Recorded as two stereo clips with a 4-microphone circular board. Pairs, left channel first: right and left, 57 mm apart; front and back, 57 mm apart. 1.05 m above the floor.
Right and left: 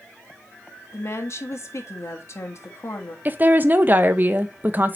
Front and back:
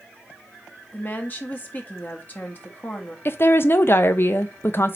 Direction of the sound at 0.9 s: 55° right.